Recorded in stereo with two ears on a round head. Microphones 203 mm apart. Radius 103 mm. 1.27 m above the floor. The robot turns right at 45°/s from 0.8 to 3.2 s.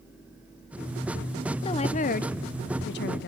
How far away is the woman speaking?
About 0.7 m.